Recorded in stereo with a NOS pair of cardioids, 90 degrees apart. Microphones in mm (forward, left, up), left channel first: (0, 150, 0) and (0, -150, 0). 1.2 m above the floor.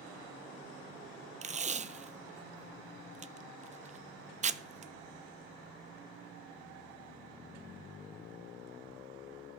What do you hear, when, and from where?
1.4 s tape being pulled: 25° right, 0.5 m